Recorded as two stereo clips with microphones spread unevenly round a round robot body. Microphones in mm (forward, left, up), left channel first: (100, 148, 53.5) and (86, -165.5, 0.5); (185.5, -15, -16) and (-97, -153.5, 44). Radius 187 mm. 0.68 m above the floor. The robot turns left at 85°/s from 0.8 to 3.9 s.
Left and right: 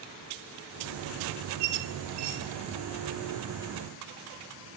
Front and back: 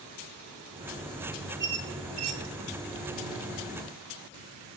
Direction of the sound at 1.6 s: 95° right.